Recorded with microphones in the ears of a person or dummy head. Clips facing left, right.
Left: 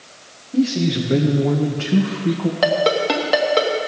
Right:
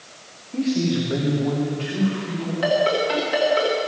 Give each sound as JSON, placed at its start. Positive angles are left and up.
{"t": 0.5, "sound": "a man speaking", "side_deg": 10, "distance_m": 1.6}
{"t": 2.6, "sound": "a ringtone", "side_deg": 60, "distance_m": 1.7}